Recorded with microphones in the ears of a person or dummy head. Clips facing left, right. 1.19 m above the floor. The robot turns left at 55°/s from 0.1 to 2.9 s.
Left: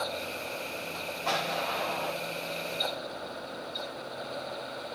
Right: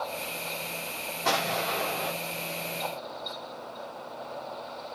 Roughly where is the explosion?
Right.